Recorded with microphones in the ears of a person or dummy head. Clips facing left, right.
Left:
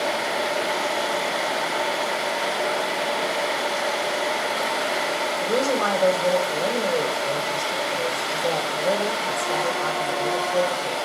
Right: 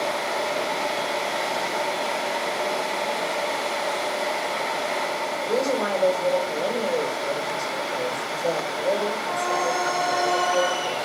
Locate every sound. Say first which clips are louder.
5.4 s a woman speaking: left 1 dB; centre (ahead or behind), 6 m